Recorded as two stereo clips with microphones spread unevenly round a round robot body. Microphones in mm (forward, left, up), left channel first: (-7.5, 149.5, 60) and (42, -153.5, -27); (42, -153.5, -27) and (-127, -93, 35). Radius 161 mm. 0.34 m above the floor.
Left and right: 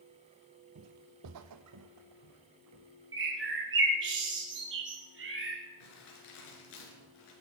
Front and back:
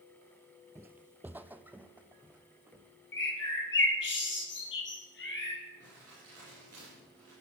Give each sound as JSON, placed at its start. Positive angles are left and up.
{"t": 0.8, "sound": "footsteps", "azimuth_deg": -135, "distance_m": 0.5}
{"t": 3.1, "sound": "a bird", "azimuth_deg": -30, "distance_m": 4.0}
{"t": 5.8, "sound": "crumpling", "azimuth_deg": 90, "distance_m": 5.5}